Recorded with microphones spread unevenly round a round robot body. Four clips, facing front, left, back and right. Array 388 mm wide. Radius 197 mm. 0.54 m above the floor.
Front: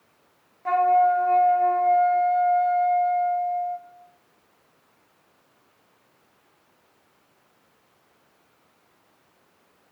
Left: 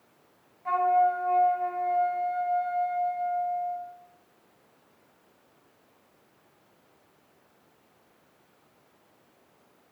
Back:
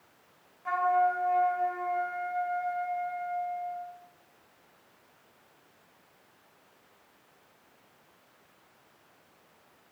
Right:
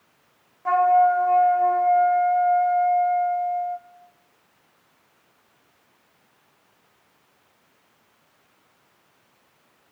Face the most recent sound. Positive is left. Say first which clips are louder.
# right 6 dB, front 7 dB
turn(degrees=-55)